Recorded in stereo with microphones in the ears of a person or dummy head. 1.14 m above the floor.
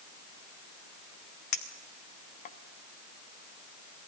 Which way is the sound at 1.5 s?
40° left (ahead or behind).